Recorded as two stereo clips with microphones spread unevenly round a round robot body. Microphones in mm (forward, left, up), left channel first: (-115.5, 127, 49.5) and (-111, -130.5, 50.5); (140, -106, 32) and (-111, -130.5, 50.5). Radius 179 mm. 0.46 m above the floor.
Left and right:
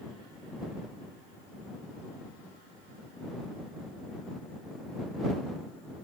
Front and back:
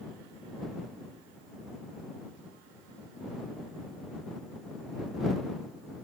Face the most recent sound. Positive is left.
No sound to turn to.